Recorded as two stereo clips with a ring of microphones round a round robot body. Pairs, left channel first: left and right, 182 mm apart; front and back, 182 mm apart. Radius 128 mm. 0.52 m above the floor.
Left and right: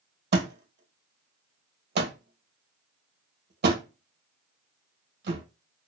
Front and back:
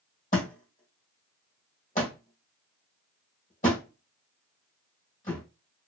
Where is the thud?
65° right, 1.8 m.